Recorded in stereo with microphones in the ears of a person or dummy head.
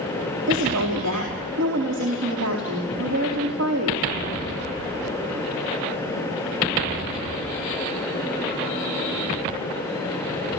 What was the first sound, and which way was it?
A woman speaking, 75° right (ahead or behind).